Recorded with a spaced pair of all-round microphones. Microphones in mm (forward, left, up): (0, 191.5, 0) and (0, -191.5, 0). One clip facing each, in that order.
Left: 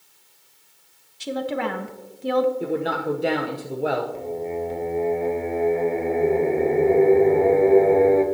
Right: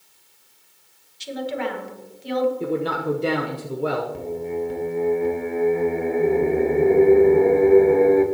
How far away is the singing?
About 1.0 m.